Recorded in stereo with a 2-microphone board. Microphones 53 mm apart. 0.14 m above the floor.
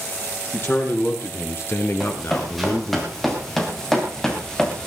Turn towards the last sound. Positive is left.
turn(degrees=10)  # may be behind; listen again after turning